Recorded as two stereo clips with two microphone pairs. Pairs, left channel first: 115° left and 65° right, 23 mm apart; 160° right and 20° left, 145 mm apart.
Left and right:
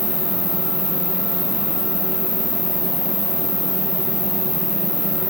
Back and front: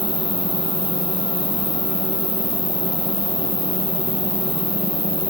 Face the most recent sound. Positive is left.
turn(degrees=155)